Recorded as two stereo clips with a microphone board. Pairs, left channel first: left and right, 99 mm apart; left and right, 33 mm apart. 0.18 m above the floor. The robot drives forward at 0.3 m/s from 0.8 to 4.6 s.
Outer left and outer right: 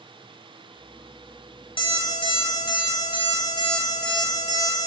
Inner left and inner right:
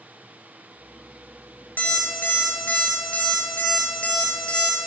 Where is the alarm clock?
65° left (ahead or behind), 1.2 m; by 4.8 s 45° left (ahead or behind), 1.6 m.